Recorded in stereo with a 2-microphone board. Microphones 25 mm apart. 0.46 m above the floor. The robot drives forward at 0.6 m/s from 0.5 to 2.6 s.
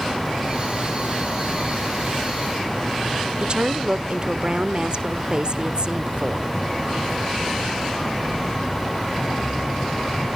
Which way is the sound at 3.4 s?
40° right (ahead or behind).